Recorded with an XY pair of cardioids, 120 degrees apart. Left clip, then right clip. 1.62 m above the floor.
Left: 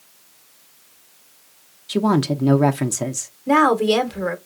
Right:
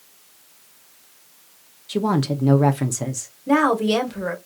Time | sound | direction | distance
1.9 | a woman speaking | 15° left | 0.8 m
3.5 | a woman speaking | 15° left | 1.4 m